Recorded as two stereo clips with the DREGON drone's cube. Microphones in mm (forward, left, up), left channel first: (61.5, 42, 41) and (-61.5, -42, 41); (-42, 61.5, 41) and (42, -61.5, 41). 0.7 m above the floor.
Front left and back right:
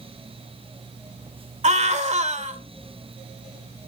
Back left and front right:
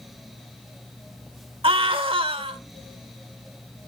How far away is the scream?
About 2.5 m.